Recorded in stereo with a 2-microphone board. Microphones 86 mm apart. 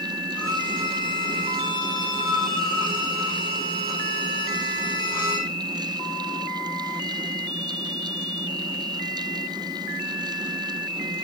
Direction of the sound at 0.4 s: 55° left (ahead or behind).